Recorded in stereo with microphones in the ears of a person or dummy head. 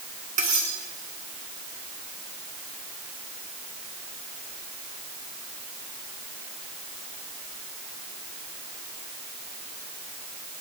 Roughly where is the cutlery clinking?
Right.